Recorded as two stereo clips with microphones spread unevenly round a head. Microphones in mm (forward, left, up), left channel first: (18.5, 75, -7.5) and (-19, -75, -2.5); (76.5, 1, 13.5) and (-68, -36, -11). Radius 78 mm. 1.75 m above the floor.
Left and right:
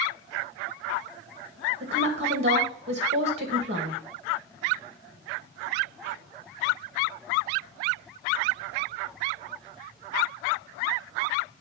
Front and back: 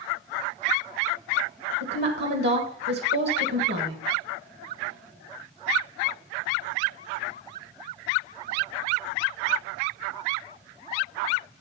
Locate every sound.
1.8 s a woman speaking: 150° right, 1.8 m